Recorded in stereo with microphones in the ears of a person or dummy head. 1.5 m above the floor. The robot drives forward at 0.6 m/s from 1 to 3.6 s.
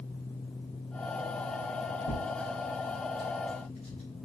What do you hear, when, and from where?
2.1 s tearing paper: 40° left (ahead or behind), 2 m; by 4.0 s 30° left (ahead or behind), 3 m